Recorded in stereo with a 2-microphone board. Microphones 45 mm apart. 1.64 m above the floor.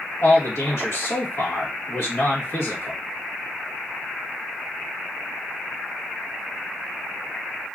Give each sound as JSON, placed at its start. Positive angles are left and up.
{"t": 0.2, "sound": "a man speaking", "side_deg": 65, "distance_m": 1.7}